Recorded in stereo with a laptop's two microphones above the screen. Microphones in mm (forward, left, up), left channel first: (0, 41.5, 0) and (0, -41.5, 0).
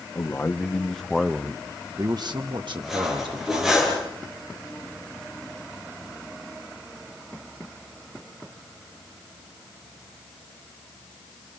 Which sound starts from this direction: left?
A man speaking, at 0.1 s.